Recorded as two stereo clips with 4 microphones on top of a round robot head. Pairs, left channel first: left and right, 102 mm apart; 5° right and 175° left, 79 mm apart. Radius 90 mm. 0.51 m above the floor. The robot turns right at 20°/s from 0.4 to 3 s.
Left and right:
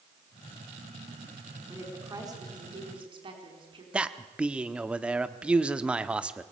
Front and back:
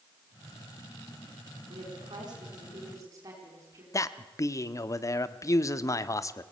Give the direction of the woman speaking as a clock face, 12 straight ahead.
5 o'clock.